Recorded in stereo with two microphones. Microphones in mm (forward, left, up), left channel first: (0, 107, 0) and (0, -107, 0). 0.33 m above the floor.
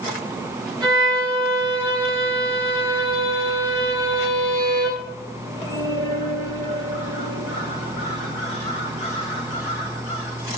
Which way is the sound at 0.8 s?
20° right (ahead or behind).